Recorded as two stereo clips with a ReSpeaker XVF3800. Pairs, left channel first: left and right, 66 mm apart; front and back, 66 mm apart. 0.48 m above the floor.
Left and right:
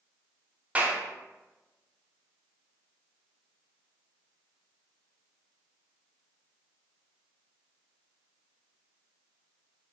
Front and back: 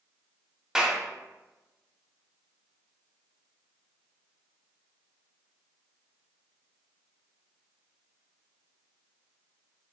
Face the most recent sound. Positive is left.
turn(degrees=-110)